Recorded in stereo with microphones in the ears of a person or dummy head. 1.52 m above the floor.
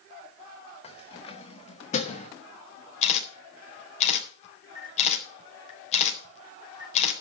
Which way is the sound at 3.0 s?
35° left (ahead or behind).